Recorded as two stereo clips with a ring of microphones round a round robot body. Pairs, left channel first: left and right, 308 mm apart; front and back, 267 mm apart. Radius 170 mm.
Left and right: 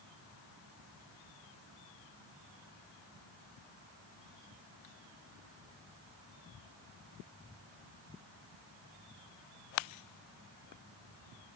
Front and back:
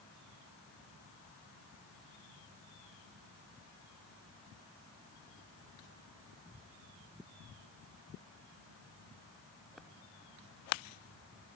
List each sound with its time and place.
Only background noise.